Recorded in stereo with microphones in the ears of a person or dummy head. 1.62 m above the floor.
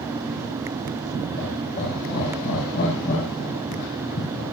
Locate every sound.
1.4 s laughter: 45° left (ahead or behind), 9 m; by 4.4 s 60° left (ahead or behind), 10.5 m